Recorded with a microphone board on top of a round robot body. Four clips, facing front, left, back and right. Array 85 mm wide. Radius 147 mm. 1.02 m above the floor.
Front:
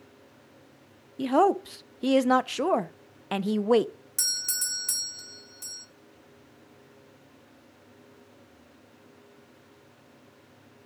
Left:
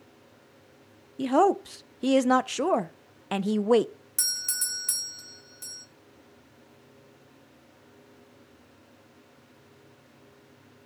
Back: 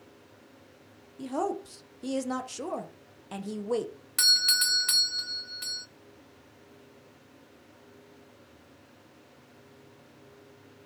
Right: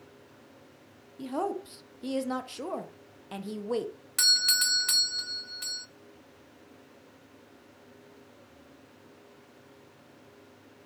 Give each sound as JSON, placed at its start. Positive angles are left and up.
{"t": 1.2, "sound": "a woman speaking", "azimuth_deg": 50, "distance_m": 0.6}
{"t": 4.2, "sound": "a doorbell", "azimuth_deg": -130, "distance_m": 0.7}